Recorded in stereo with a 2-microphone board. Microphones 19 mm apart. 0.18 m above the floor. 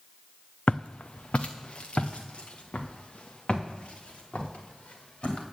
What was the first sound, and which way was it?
Footsteps, 60° left (ahead or behind).